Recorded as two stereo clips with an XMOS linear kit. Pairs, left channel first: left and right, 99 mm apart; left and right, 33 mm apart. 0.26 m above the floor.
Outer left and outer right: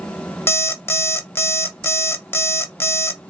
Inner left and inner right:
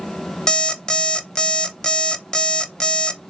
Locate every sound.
0.5 s an alarm clock: 25° left (ahead or behind), 0.5 m